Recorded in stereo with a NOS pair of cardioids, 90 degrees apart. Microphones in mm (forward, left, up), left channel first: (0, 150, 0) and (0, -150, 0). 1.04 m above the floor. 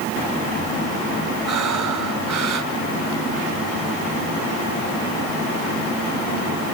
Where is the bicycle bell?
No bicycle bell in this recording.